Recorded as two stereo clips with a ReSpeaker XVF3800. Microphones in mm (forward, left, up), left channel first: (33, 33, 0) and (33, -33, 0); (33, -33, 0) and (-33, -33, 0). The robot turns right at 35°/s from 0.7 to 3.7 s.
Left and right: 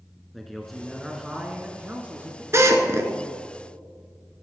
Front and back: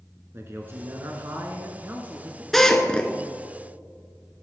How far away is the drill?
About 1.4 m.